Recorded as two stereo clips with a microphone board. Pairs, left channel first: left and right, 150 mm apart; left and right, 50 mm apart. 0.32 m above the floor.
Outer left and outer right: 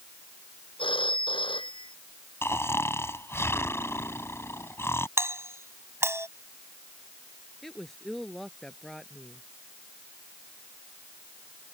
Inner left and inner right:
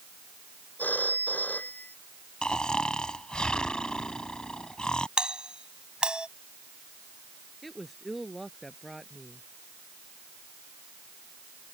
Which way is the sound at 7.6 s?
Centre (ahead or behind).